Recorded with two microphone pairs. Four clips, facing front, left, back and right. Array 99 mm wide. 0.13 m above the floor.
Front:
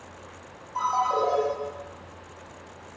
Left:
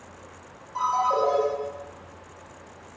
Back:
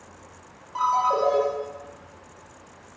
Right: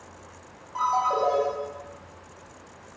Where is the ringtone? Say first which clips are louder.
Left 1 dB, back 2 dB; 150° right, 1.0 m.